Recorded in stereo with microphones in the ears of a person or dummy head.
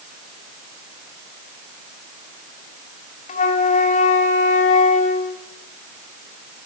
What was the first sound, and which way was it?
A flute, 40° left (ahead or behind).